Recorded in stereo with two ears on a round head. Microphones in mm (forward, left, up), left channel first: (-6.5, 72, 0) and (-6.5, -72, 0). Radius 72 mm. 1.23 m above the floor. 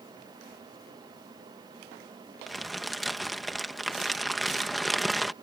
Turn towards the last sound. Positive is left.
turn(degrees=0)  # may be behind; listen again after turning